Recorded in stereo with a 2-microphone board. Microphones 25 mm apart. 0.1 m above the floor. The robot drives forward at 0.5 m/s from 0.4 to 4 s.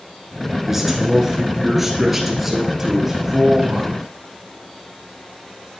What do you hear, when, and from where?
0.7 s a man speaking: 10° right (ahead or behind), 1.1 m; by 4.0 s 5° right (ahead or behind), 2 m